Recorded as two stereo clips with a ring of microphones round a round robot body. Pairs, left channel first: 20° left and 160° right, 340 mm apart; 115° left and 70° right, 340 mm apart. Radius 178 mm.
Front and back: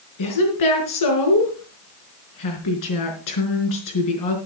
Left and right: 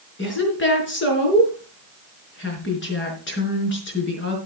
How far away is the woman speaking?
About 4.5 m.